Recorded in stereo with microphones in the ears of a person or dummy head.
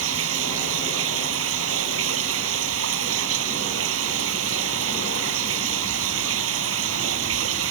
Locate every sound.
0.0 s running water: 80° right